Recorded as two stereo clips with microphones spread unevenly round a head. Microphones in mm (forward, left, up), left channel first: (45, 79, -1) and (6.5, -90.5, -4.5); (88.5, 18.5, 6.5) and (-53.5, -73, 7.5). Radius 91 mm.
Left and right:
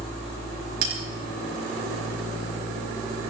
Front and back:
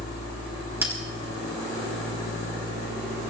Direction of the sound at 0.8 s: 70° right.